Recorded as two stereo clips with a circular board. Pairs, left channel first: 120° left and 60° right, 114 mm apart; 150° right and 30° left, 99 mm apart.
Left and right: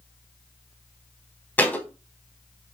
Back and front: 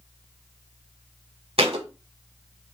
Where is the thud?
45° left, 0.7 m.